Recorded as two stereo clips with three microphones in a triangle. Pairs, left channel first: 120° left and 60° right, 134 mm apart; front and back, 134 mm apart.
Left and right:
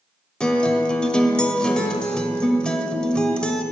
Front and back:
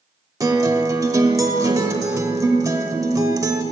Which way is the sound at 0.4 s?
165° right.